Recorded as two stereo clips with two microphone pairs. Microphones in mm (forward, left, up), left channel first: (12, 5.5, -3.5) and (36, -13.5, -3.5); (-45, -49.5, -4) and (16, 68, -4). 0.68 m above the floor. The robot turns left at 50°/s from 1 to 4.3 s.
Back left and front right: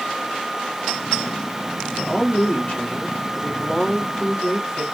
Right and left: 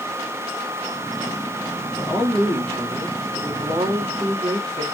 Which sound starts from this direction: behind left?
A woman speaking, at 1.9 s.